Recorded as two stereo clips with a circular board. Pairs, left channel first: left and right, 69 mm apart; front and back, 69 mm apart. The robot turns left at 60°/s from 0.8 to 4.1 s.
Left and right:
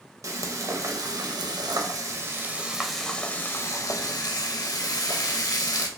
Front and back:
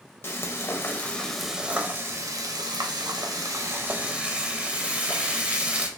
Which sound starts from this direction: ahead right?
Frying, at 0.2 s.